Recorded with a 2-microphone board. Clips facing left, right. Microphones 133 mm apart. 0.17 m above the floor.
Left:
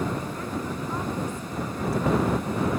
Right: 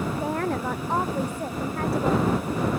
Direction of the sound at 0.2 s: 70° right (ahead or behind).